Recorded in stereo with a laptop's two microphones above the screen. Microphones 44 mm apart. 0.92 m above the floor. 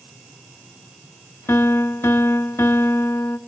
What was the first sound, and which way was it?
A piano, 70° left (ahead or behind).